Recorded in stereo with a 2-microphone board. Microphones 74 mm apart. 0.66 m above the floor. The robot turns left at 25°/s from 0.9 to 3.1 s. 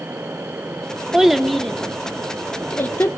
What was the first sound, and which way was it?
A child speaking, 5° right (ahead or behind).